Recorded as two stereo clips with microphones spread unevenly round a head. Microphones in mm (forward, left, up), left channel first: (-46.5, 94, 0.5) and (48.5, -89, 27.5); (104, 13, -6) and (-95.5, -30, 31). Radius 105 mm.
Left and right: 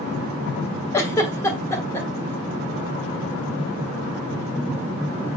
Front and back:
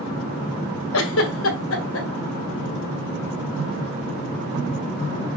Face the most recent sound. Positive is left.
turn(degrees=40)